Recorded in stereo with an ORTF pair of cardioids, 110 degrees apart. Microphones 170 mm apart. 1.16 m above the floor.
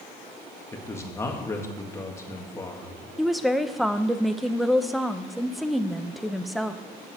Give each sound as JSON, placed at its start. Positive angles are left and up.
{"t": 0.7, "sound": "a man speaking", "azimuth_deg": 15, "distance_m": 1.8}
{"t": 3.2, "sound": "a woman speaking", "azimuth_deg": 0, "distance_m": 0.7}